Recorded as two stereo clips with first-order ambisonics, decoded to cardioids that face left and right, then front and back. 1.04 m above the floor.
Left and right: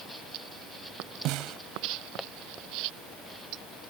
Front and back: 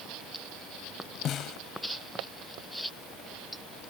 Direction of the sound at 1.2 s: 55° right.